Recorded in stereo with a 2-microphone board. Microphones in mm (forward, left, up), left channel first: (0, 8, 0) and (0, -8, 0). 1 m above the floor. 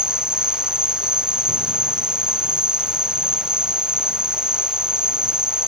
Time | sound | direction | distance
0.0 | an insect | 80° right | ?